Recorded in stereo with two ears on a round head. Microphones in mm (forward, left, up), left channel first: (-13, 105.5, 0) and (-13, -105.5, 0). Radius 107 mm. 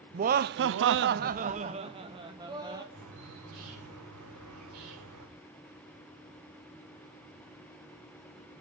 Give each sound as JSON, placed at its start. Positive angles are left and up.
{"t": 0.1, "sound": "laughter", "side_deg": -30, "distance_m": 0.7}
{"t": 2.9, "sound": "a bird", "side_deg": -80, "distance_m": 8.0}